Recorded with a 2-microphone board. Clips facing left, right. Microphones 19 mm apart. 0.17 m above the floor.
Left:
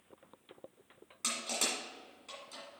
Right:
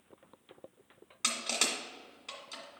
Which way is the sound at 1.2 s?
35° right (ahead or behind).